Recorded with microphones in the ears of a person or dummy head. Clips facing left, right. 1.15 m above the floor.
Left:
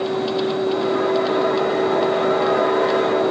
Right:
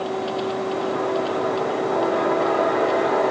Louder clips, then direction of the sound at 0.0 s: Left 4 dB; 25° left (ahead or behind).